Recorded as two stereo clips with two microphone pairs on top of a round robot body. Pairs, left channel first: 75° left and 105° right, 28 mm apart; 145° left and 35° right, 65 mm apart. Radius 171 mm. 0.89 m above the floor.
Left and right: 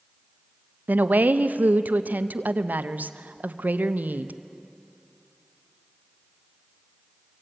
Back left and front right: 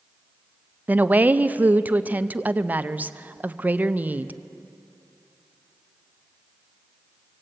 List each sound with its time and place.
0.9 s a woman speaking: 95° right, 0.9 m